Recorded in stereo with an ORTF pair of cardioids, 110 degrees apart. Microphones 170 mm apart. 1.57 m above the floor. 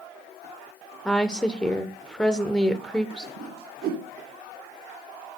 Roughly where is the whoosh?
Ahead right.